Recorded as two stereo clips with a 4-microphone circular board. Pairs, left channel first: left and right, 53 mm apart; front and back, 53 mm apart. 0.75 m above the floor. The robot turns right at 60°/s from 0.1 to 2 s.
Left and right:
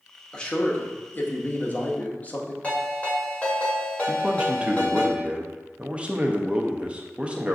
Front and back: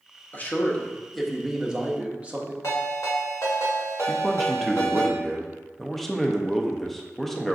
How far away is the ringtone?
About 1.6 m.